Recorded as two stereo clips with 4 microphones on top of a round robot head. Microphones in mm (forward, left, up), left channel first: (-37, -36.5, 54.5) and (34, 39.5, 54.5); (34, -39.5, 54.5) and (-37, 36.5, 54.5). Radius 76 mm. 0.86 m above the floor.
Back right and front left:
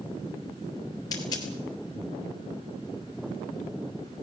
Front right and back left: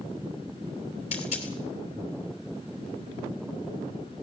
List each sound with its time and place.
1.1 s a dropped coin: 75° right, 3 m